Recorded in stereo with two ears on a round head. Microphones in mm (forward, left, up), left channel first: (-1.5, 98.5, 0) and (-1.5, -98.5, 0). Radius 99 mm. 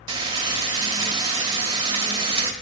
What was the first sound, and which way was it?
Frying, 20° right (ahead or behind).